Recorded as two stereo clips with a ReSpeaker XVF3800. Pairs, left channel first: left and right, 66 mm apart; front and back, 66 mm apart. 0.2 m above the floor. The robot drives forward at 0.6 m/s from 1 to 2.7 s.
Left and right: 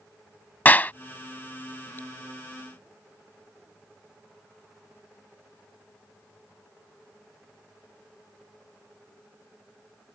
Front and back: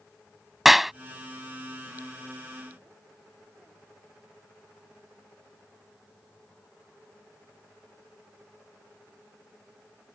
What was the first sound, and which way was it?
A clap, 95° left.